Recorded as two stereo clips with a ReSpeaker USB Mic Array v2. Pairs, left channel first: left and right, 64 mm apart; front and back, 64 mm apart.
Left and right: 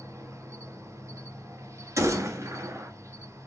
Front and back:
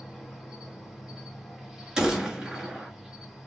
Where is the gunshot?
100° right, 1.6 m.